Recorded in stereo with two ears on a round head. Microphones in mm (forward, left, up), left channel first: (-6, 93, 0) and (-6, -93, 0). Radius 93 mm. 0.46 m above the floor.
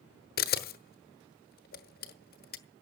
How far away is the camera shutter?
About 1.1 m.